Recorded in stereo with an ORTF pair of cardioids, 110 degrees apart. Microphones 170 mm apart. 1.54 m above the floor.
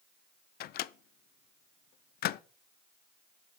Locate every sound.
0.6 s a microwave: 65° left, 0.6 m